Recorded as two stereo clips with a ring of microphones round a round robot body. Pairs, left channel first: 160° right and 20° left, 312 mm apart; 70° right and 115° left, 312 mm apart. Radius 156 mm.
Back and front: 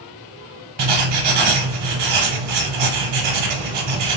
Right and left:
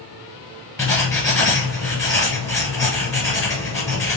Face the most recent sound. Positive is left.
turn(degrees=15)